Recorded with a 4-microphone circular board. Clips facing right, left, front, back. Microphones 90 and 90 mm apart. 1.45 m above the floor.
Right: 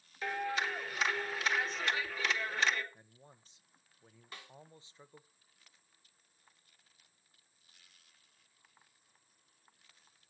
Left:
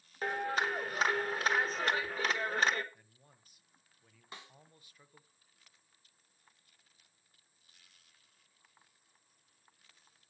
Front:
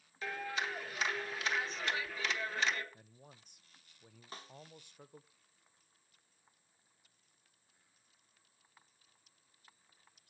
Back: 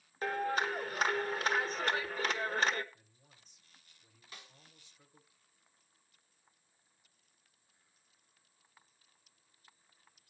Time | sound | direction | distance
0.2 | a clap | 135° left | 1.2 m
2.9 | a man speaking | 25° right | 0.7 m
4.3 | a snare drum | 30° left | 1.3 m